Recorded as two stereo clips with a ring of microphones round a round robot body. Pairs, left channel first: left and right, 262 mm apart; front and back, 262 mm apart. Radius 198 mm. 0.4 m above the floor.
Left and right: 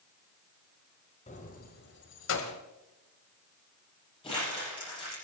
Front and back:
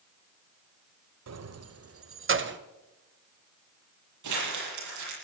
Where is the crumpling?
165° left, 9.5 m.